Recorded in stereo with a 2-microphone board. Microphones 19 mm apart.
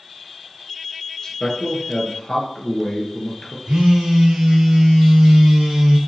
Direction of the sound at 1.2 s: 35° left (ahead or behind).